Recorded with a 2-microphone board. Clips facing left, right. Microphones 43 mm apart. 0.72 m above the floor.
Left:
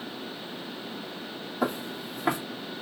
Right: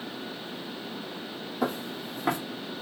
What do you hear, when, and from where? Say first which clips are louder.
1.6 s footsteps: left 1 dB; 5° left (ahead or behind), 1.9 m